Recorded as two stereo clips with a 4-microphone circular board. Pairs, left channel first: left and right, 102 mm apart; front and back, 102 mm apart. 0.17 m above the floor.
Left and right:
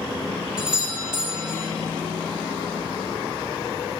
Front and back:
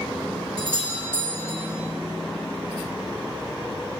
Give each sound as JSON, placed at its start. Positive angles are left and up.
{"t": 0.6, "sound": "a doorbell", "azimuth_deg": -10, "distance_m": 2.0}